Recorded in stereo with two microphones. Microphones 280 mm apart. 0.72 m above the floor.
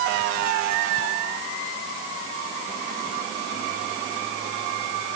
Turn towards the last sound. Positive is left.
No sound to turn to.